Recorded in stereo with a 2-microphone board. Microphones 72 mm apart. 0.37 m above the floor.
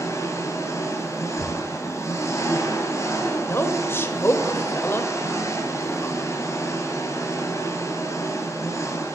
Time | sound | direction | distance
0.0 | an engine running | 50° left (ahead or behind) | 2 m
1.4 | knocking | 40° left (ahead or behind) | 0.9 m
3.5 | a woman speaking | 35° left (ahead or behind) | 1.2 m